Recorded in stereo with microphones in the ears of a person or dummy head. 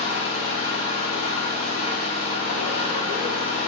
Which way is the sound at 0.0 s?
30° left (ahead or behind).